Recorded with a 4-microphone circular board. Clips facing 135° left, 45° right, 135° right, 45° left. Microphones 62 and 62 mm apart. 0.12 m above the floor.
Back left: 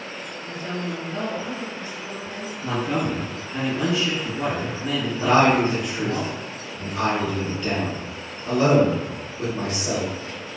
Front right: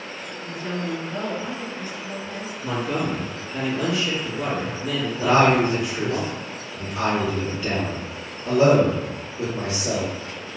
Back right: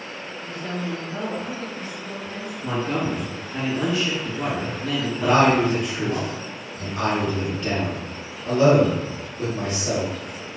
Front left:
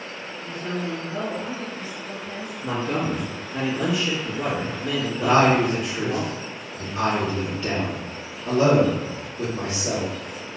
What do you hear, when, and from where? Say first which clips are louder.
0.4 s a woman speaking: front right 2 dB, front left 1 dB; 15° left, 1.7 m; by 2.5 s 115° left, 1.6 m
2.6 s a man speaking: back left 1 dB, even; 120° left, 1.9 m
5.2 s a man speaking: even, even; 15° left, 1.6 m